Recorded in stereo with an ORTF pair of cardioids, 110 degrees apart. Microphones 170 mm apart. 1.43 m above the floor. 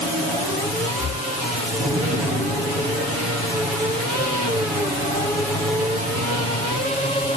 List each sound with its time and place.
1.0 s breathing: 50° left